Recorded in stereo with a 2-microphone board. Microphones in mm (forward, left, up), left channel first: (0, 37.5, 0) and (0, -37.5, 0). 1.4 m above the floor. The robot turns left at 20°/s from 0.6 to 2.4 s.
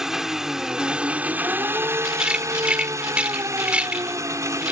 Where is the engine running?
5° right; by 4.7 s 40° right.